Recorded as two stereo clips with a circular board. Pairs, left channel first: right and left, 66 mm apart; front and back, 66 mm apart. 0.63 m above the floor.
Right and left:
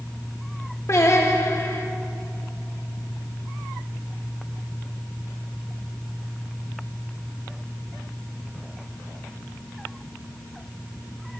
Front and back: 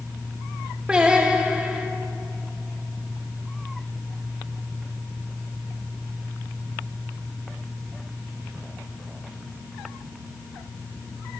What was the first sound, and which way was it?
Singing, 110° right.